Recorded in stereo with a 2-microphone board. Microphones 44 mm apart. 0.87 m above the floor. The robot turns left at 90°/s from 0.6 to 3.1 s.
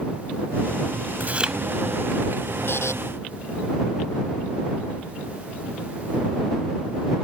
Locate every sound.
1.2 s chewing: 140° right; by 1.6 s 170° right
2.7 s a buzzer: 55° left (ahead or behind); by 2.9 s 80° left